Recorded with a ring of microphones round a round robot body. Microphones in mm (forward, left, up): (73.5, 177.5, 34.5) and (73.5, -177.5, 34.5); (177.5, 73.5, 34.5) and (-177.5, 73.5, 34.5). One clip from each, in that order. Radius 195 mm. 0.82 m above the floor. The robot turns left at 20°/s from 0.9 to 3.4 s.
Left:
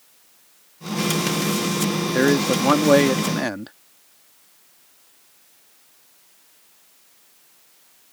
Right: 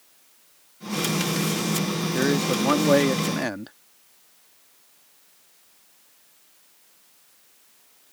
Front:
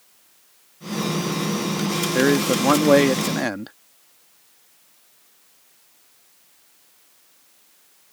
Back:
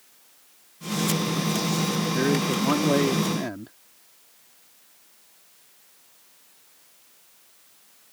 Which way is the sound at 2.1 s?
25° left.